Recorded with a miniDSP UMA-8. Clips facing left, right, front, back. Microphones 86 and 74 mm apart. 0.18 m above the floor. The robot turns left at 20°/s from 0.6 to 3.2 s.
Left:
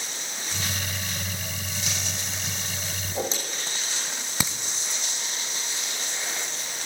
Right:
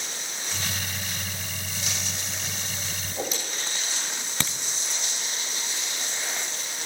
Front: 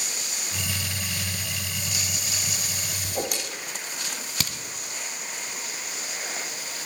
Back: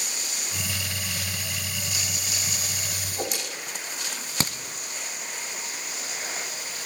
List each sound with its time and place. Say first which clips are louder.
3.0 s a whoosh: left 3 dB, front 3 dB; 35° left, 9.5 m; by 3.3 s 30° left, 9.5 m
4.4 s a crack: left 2 dB, back 6 dB; 165° left, 1.5 m